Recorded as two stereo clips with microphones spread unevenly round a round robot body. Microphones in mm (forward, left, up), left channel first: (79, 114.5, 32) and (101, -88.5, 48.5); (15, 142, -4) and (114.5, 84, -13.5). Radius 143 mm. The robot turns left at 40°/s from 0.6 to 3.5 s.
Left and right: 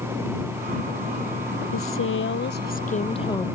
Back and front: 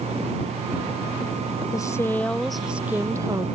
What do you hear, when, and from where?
1.7 s a woman speaking: 90° left; by 3.5 s 25° left